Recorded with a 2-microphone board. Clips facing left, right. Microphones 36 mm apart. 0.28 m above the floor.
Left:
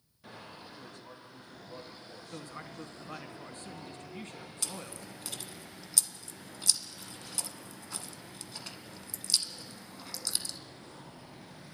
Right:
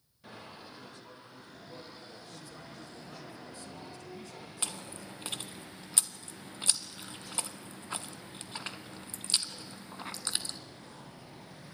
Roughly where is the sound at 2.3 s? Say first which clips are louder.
Left 4 dB; left.